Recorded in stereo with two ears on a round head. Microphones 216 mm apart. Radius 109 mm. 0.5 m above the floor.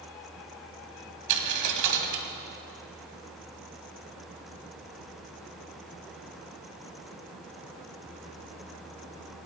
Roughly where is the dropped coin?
Right.